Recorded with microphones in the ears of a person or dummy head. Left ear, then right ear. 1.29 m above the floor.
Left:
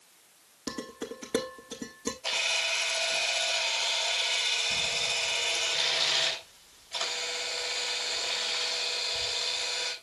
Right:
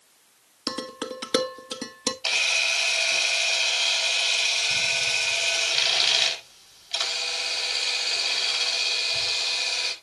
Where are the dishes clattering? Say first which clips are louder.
Right 6 dB; 55° right (ahead or behind), 1.4 m.